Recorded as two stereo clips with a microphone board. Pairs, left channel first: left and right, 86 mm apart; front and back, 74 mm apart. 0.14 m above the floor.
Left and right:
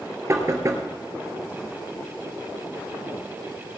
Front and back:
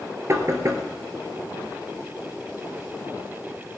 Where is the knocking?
140° right, 2 m.